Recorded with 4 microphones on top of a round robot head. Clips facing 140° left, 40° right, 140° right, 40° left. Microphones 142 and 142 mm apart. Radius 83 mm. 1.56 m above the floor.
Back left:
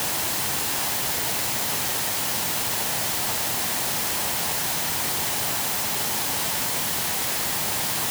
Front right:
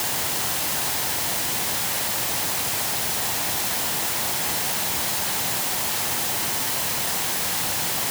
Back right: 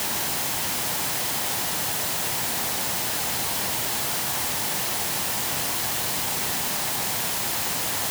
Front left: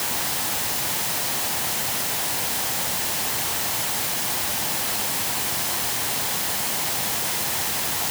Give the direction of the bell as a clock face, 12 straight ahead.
I don't hear a bell.